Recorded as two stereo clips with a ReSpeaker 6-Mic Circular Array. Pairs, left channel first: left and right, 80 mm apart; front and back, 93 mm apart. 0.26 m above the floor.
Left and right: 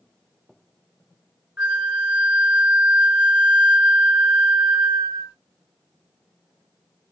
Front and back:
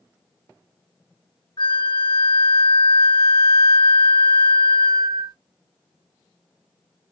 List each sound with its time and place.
1.6 s a flute: 30° right, 1.5 m